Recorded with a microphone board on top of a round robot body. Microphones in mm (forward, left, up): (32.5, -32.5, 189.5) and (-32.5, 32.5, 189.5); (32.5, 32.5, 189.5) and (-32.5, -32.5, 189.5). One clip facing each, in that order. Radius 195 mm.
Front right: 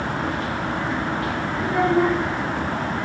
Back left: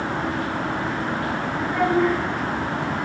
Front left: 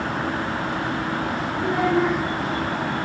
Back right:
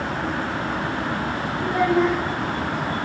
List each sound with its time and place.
1.6 s a child speaking: 10° left, 5 m